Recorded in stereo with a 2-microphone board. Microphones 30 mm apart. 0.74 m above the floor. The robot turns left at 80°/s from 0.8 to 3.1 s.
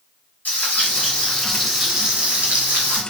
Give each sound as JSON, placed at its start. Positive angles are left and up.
{"t": 0.5, "sound": "frying", "azimuth_deg": 65, "distance_m": 2.5}